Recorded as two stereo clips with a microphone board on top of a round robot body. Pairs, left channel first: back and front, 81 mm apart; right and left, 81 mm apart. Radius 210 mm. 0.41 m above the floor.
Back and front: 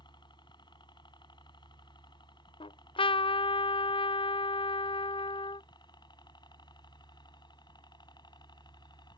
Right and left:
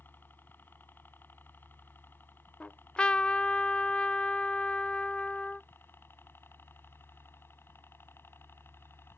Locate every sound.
0.0 s a helicopter: 155° right; by 9.2 s 150° right
2.6 s a trumpet: 170° right